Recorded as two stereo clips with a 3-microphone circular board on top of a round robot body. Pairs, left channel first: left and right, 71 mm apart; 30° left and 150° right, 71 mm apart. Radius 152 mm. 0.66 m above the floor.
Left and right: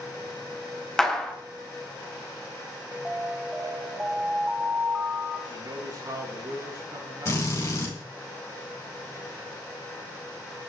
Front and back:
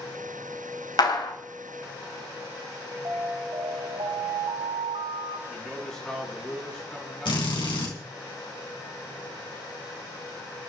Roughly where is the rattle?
I don't hear a rattle.